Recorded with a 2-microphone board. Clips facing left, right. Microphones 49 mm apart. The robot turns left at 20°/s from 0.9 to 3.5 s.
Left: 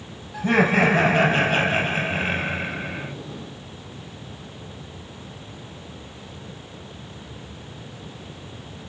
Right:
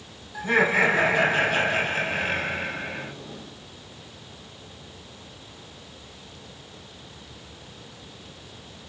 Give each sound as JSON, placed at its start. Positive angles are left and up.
{"t": 0.3, "sound": "laughter", "azimuth_deg": 45, "distance_m": 6.5}